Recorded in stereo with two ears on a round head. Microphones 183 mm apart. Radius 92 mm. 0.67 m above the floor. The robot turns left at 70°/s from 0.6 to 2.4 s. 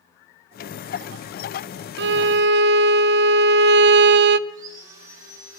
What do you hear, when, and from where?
2.0 s a violin: 55° right (ahead or behind), 0.5 m
4.5 s sawing: 35° right (ahead or behind), 6 m